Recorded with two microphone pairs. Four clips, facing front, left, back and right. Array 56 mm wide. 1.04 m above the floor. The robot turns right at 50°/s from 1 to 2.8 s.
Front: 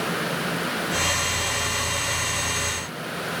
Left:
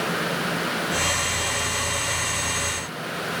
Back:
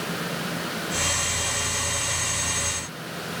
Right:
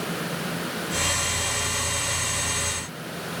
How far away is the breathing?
No breathing in this recording.